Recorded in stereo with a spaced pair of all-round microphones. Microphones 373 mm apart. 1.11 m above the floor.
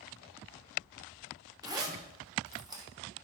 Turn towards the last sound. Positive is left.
turn(degrees=-10)  # may be behind; listen again after turning